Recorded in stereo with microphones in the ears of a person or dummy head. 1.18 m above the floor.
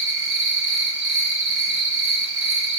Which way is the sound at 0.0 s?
65° right (ahead or behind).